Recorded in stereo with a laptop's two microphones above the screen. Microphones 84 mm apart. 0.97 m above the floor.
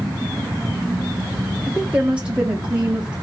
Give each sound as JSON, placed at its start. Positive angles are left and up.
{"t": 1.7, "sound": "a woman speaking", "side_deg": -15, "distance_m": 0.6}